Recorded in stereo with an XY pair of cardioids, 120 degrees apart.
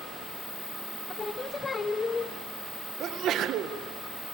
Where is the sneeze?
65° right, 1.9 m.